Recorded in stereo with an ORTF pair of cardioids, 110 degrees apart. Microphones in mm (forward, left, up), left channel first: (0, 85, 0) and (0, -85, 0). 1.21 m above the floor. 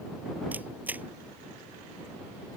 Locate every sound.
0.5 s a camera shutter: 10° right